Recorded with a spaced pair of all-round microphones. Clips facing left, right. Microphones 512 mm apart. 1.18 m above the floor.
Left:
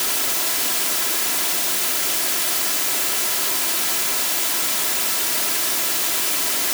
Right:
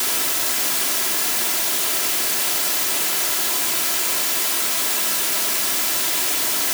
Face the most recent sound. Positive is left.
No sound to turn to.